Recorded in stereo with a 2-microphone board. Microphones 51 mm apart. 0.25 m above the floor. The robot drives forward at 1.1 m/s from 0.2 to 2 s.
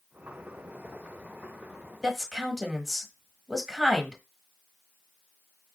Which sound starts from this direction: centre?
A woman speaking, at 2.0 s.